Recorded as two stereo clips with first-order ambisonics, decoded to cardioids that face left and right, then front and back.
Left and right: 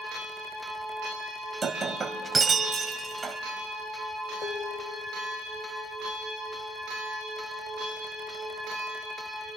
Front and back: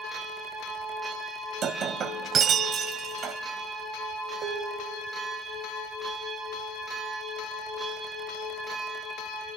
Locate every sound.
1.6 s breaking glass: 155° right, 1.5 m
4.4 s dishes clattering: 140° left, 1.7 m